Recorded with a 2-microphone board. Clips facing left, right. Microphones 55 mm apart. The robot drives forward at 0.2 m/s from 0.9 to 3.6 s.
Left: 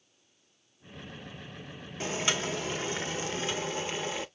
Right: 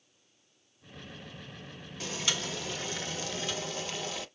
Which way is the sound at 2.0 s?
30° left (ahead or behind).